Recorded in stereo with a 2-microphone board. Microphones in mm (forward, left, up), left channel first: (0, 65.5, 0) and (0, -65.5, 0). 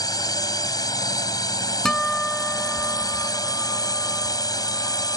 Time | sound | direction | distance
0.0 | a drone | 30° left (ahead or behind) | ?
1.9 | a guitar | 5° left (ahead or behind) | ?